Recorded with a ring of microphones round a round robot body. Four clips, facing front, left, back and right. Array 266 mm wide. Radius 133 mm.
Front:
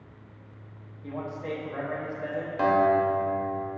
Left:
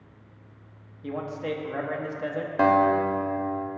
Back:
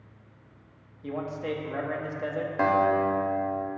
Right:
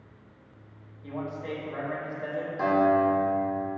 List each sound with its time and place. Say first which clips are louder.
1.0 s a man speaking: left 3 dB, back 2 dB; 125° left, 0.9 m
2.6 s a guitar: left 2 dB, front 1 dB; 105° left, 0.9 m